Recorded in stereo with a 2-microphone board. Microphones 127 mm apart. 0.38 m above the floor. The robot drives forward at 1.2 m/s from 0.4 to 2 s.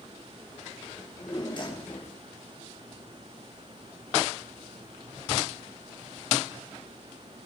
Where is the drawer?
35° left (ahead or behind), 4.5 m; by 2.2 s 45° left (ahead or behind), 3.5 m.